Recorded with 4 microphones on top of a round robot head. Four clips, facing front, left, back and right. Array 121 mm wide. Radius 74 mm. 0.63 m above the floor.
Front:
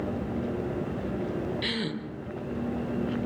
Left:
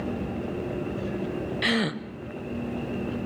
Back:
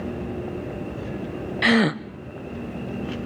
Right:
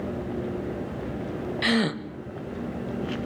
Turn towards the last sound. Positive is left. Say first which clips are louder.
# right 3 dB, back 12 dB
turn(degrees=-175)